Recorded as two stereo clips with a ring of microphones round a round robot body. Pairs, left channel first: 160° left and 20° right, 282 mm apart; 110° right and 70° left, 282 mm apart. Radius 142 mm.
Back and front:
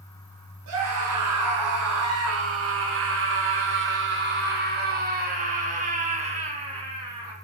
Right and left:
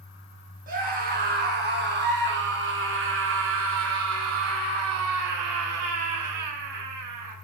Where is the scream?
5° left, 5.5 m; by 7.3 s 55° left, 4.5 m.